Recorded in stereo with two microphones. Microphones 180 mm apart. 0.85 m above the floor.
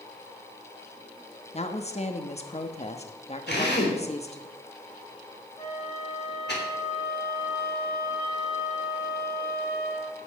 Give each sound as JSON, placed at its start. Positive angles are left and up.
{"t": 1.5, "sound": "a woman speaking", "side_deg": 35, "distance_m": 1.2}
{"t": 3.5, "sound": "a drill", "side_deg": 70, "distance_m": 3.0}
{"t": 5.6, "sound": "a flute", "side_deg": 60, "distance_m": 6.5}